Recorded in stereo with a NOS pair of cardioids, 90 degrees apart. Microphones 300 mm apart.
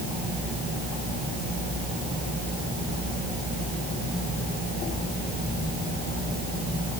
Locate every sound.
Only background noise.